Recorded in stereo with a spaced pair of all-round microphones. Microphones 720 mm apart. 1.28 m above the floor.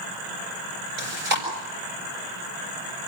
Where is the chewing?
90° right, 7 m.